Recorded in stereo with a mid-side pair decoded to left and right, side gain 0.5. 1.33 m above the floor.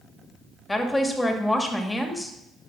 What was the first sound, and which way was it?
A woman speaking, 10° left.